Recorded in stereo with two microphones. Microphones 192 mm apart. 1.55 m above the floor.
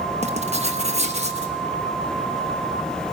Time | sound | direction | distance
0.2 | writing | 35° right (ahead or behind) | 1.2 m